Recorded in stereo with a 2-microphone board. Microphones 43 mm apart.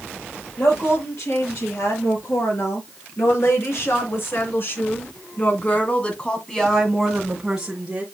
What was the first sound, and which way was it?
A woman speaking, 75° left (ahead or behind).